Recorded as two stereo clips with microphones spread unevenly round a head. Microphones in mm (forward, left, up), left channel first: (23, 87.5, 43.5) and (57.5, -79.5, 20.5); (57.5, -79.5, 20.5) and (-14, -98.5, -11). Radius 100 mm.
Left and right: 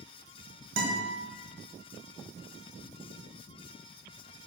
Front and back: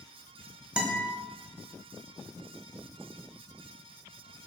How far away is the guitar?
About 1.9 m.